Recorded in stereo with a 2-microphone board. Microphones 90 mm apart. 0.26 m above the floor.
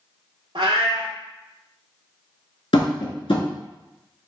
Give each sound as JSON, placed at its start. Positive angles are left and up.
{"t": 0.6, "sound": "a cat meowing", "side_deg": -85, "distance_m": 0.7}
{"t": 2.7, "sound": "tapping", "side_deg": 85, "distance_m": 0.8}